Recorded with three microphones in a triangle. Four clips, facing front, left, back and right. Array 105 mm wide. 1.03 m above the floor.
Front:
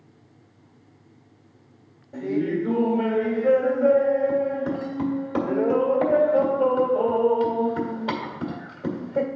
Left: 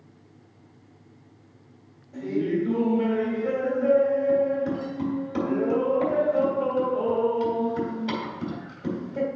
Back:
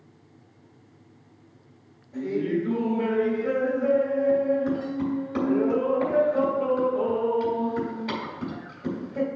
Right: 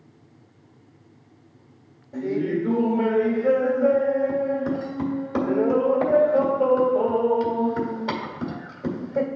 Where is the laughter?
45° right, 2.5 m.